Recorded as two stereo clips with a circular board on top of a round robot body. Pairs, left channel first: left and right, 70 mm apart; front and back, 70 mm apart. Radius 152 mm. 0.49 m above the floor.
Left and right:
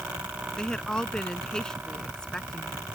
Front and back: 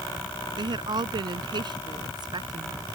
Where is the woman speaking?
170° left.